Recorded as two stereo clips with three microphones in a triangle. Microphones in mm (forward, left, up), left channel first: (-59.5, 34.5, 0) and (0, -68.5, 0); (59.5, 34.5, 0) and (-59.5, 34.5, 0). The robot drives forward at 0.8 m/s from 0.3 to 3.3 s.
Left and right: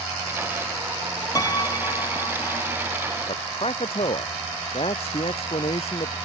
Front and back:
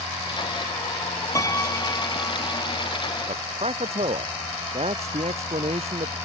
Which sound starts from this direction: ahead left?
A piano, at 1.4 s.